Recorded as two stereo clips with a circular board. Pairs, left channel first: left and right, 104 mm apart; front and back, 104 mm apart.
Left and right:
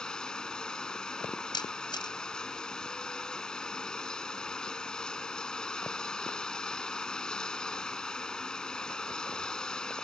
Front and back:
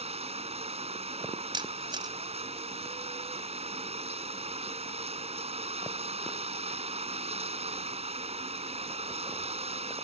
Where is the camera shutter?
135° left.